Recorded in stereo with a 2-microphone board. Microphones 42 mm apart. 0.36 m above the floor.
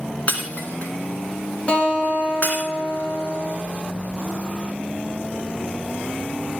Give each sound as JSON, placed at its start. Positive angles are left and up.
{"t": 0.3, "sound": "breaking glass", "side_deg": 40, "distance_m": 2.0}
{"t": 1.7, "sound": "a guitar", "side_deg": 25, "distance_m": 3.0}